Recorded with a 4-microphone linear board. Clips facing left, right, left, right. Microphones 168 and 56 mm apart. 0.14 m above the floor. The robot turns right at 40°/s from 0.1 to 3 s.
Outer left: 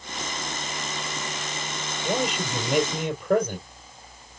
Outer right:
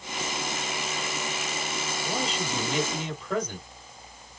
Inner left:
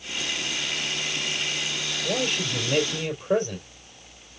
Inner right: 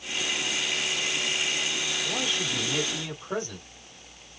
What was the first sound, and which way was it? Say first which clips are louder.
A man speaking: outer left 6 dB, inner left 7 dB; 80° left.